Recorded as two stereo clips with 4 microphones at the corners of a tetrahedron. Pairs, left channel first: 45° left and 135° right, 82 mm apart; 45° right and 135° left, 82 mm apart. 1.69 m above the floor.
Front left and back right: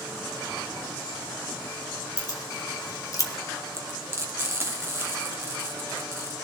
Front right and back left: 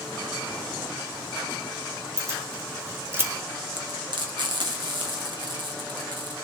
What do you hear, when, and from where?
2.2 s keys jangling: 80° left, 2.5 m
3.7 s frying: 165° left, 1.8 m